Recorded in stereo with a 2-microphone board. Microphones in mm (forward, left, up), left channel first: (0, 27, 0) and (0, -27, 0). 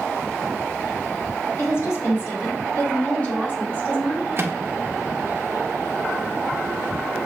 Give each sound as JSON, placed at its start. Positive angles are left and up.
{"t": 1.6, "sound": "a woman speaking", "side_deg": 50, "distance_m": 2.0}
{"t": 4.4, "sound": "a microwave", "side_deg": -50, "distance_m": 0.7}